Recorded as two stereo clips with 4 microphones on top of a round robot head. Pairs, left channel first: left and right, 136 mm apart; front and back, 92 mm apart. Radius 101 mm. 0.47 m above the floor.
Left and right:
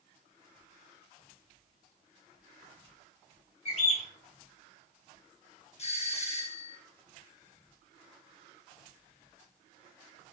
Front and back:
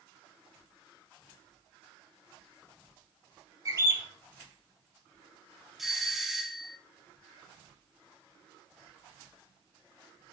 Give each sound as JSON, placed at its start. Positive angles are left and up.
{"t": 3.6, "sound": "a bird", "azimuth_deg": 135, "distance_m": 3.0}
{"t": 5.8, "sound": "a doorbell", "azimuth_deg": 95, "distance_m": 1.7}